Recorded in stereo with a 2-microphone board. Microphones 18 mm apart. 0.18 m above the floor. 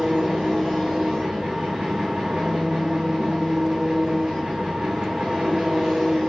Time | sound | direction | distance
0.0 | an engine running | 75° right (ahead or behind) | 8.5 m